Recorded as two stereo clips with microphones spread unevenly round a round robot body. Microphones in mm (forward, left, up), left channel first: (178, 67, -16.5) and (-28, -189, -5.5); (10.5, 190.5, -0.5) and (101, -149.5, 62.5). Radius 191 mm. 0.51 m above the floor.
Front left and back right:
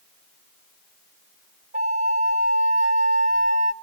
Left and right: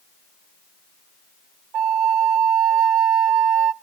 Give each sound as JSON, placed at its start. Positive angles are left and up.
{"t": 1.7, "sound": "a flute", "azimuth_deg": -60, "distance_m": 0.6}